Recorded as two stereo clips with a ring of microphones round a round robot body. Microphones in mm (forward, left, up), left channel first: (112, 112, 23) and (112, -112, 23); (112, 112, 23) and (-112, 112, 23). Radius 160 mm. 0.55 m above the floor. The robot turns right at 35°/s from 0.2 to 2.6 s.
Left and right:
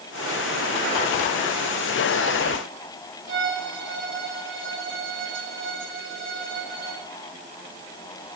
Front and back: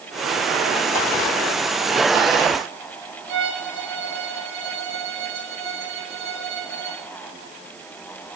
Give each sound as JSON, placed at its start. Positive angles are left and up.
{"t": 3.3, "sound": "a violin", "azimuth_deg": -60, "distance_m": 8.0}